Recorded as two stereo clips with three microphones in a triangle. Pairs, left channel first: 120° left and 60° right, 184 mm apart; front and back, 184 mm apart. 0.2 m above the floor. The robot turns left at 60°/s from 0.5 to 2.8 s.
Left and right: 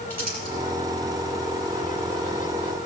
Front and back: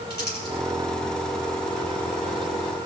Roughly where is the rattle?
I don't hear a rattle.